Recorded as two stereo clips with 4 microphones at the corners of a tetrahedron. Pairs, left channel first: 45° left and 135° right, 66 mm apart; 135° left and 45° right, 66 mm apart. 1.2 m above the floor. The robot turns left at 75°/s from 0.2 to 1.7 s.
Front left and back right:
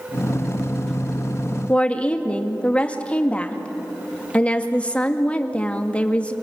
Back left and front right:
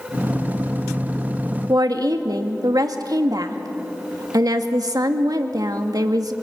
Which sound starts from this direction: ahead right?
A woman speaking, at 1.7 s.